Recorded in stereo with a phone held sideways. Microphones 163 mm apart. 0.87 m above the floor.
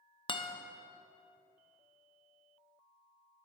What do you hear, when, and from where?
0.3 s a guitar: 35° left (ahead or behind), 0.5 m